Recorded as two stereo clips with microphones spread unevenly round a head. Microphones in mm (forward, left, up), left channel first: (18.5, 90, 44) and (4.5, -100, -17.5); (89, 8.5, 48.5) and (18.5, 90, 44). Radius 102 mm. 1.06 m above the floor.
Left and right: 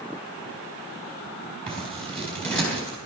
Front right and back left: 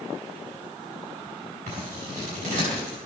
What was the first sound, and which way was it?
Scissors, 170° left.